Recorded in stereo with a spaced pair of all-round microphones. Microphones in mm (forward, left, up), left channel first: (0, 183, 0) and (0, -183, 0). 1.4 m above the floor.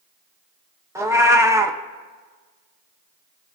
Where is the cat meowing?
10° right (ahead or behind), 0.6 m.